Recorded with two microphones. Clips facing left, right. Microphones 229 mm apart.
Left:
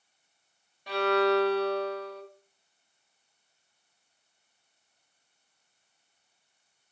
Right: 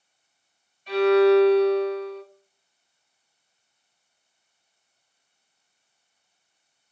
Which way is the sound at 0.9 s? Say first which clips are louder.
Right 9 dB; 70° left (ahead or behind).